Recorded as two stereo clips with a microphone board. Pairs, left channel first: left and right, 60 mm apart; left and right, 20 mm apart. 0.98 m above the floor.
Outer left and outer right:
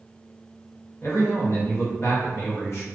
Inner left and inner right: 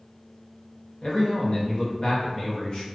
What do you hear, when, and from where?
1.0 s a man speaking: 50° left (ahead or behind), 0.9 m